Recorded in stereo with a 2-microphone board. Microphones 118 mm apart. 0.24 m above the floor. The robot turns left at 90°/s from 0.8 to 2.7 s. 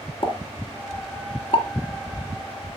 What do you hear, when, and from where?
0.2 s a pop: 50° left (ahead or behind), 1.8 m; by 2.7 s 40° right (ahead or behind), 1.8 m